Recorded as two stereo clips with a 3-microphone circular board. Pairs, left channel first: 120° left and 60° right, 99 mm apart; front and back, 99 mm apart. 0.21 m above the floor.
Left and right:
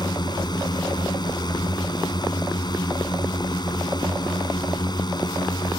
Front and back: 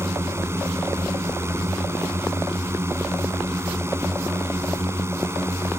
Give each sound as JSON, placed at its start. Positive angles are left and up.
{"t": 0.0, "sound": "a drone", "azimuth_deg": 125}